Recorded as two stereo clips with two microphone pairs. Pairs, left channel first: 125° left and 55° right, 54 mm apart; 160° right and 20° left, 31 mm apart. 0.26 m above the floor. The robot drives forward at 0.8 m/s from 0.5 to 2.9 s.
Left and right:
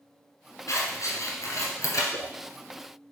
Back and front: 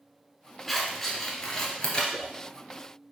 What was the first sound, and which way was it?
Scissors, 115° left.